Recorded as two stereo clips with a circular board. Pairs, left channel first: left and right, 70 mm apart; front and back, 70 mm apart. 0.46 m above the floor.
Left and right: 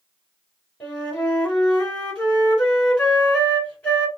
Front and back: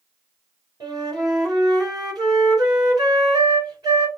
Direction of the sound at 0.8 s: 160° left.